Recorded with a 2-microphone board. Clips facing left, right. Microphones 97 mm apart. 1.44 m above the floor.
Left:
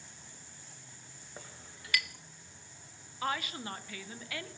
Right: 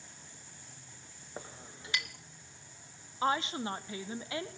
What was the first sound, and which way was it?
A clink, 25° right (ahead or behind).